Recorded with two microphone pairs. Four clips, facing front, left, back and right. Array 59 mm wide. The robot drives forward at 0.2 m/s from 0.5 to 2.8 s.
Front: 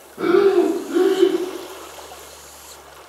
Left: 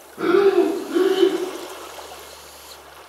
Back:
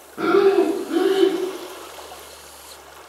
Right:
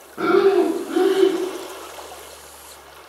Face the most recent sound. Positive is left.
turn(degrees=-140)